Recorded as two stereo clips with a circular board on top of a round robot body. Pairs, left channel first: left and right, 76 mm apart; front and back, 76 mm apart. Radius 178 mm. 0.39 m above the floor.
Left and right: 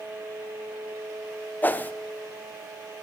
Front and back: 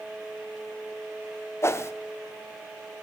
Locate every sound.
1.6 s a whoosh: 35° left, 0.9 m